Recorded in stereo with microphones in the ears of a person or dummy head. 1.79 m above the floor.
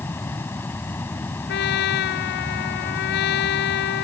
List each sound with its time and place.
0.0 s a fan: 10° left (ahead or behind)
1.5 s a trumpet: 60° left (ahead or behind)